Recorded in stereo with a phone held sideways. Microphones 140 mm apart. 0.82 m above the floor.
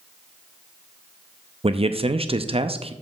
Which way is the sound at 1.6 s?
45° right (ahead or behind).